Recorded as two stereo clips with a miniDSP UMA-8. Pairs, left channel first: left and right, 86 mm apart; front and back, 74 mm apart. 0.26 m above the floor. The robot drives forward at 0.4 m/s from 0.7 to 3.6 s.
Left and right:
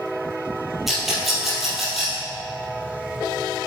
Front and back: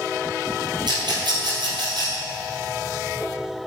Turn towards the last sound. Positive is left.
turn(degrees=180)